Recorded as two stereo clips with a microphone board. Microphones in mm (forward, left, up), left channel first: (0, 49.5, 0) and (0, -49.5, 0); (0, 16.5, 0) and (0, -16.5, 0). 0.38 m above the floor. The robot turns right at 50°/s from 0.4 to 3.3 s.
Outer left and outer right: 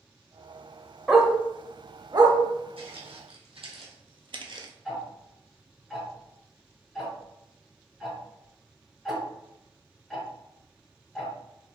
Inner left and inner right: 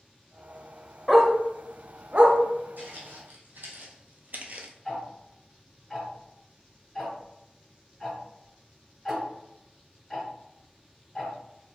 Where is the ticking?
Centre (ahead or behind), 1.4 m.